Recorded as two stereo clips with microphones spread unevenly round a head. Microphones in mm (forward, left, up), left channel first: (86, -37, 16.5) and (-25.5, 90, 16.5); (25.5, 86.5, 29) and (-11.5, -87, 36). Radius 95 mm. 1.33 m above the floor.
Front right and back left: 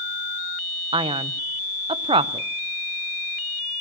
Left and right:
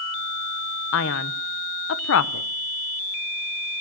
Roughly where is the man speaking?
Left.